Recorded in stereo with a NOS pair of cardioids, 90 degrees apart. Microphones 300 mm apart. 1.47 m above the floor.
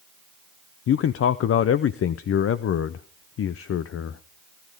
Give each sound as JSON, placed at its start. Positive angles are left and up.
{"t": 0.9, "sound": "a man speaking", "azimuth_deg": 50, "distance_m": 0.7}